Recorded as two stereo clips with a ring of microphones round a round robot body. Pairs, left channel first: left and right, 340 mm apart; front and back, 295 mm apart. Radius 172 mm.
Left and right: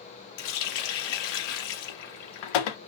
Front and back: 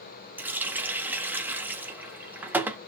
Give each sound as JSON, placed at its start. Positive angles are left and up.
{"t": 0.4, "sound": "a running tap", "azimuth_deg": 95, "distance_m": 0.8}